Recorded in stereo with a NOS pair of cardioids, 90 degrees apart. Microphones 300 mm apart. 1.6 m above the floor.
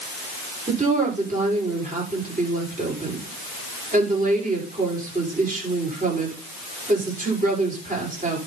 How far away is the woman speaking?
About 5.5 m.